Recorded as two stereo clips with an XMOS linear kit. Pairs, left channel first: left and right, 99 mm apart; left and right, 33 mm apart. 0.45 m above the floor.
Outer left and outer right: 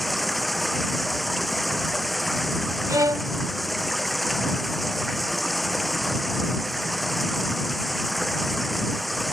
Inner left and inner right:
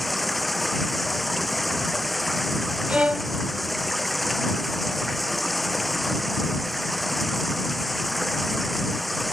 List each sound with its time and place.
0.0 s running water: centre (ahead or behind)
2.9 s a violin: 35° right (ahead or behind)